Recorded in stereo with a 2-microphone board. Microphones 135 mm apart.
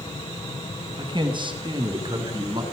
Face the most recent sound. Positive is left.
turn(degrees=-40)  # may be behind; listen again after turning